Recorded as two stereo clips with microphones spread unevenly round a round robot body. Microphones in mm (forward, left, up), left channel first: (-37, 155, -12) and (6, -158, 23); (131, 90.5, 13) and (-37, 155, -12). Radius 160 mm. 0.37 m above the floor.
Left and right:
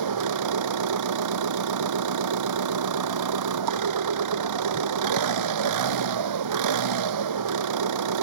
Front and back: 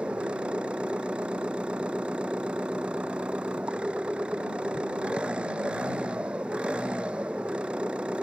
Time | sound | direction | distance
0.0 | an engine running | 115° right | ?